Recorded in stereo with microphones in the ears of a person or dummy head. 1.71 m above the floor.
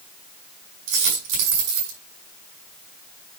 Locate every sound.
0.9 s a dropped coin: 70° right (ahead or behind), 6 m